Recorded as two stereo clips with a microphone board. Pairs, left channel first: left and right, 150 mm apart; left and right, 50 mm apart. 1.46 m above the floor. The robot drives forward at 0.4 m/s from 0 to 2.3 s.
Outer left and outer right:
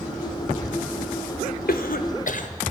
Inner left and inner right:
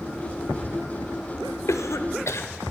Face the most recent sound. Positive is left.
turn(degrees=60)  # may be behind; listen again after turning